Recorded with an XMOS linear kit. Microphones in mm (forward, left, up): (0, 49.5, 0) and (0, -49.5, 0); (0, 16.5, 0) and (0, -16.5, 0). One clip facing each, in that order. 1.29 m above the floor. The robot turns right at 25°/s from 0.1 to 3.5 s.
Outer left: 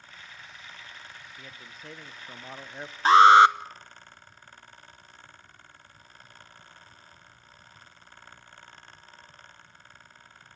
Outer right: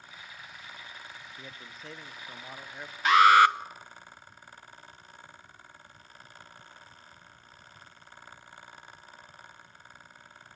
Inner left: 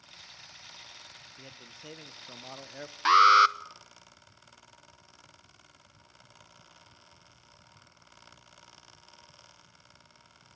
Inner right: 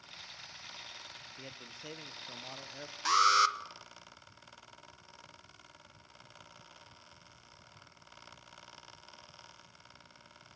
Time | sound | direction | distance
1.4 | a man speaking | 10° right | 0.9 m
3.0 | an alarm | 35° left (ahead or behind) | 0.9 m